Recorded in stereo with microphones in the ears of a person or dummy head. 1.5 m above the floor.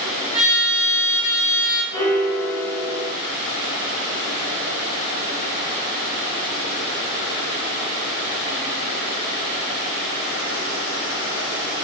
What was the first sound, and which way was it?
A trumpet, 55° right (ahead or behind).